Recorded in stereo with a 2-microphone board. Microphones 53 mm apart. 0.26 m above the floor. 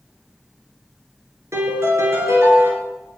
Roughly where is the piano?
Right.